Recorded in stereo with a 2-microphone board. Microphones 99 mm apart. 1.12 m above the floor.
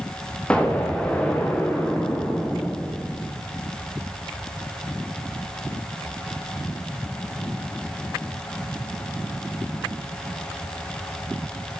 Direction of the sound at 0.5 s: 10° left (ahead or behind).